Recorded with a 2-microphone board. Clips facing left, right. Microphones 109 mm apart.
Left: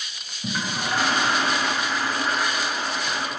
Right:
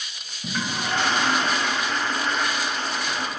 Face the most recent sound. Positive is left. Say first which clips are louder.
# even
turn(degrees=5)  # may be behind; listen again after turning